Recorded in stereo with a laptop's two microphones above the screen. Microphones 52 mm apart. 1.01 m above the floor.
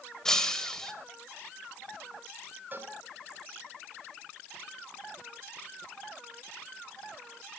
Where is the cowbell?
35° right (ahead or behind), 3 m.